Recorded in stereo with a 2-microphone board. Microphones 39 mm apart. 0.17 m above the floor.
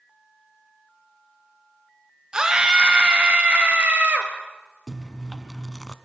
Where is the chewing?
15° left (ahead or behind), 0.8 m.